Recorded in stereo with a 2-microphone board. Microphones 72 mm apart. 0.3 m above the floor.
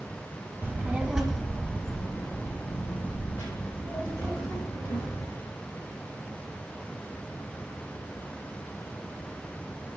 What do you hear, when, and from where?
0.6 s a child speaking: 35° right (ahead or behind), 0.7 m; by 5.3 s 45° left (ahead or behind), 2.5 m